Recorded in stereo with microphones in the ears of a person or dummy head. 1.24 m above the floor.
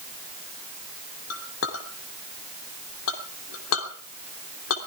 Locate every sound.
1.3 s a clink: 85° left, 3 m